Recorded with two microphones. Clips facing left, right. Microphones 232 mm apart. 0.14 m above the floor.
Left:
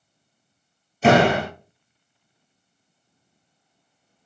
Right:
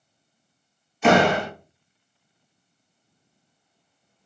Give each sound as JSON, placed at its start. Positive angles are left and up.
{"t": 1.0, "sound": "a door slam", "side_deg": 40, "distance_m": 2.5}